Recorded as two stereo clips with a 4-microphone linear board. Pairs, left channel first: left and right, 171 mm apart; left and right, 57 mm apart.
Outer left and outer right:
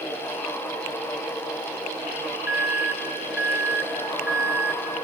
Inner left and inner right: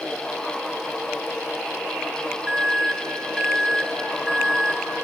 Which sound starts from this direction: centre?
An alarm, at 2.5 s.